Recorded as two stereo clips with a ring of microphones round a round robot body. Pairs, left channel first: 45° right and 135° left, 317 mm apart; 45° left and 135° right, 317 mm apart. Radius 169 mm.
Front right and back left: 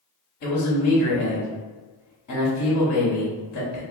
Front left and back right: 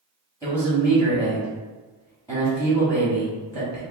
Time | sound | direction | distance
0.4 | a man speaking | 30° right | 1.3 m